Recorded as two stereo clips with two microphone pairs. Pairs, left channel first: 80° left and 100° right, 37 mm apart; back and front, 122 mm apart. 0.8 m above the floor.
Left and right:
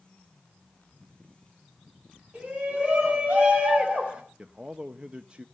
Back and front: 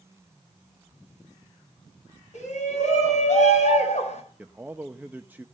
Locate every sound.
2.3 s a shout: 160° right, 6 m
4.4 s a man speaking: 65° right, 0.7 m